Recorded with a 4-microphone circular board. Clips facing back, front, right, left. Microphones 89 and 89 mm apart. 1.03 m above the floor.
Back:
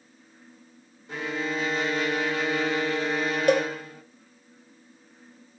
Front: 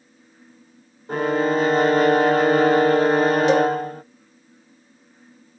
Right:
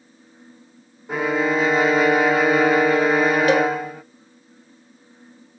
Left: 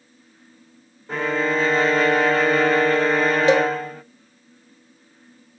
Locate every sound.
1.1 s a violin: 10° right, 0.6 m
3.5 s a cowbell: 155° left, 1.8 m